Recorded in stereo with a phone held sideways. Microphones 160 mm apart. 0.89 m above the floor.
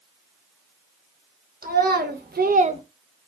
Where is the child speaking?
75° right (ahead or behind), 1.0 m; by 2.8 s 30° right (ahead or behind), 0.5 m.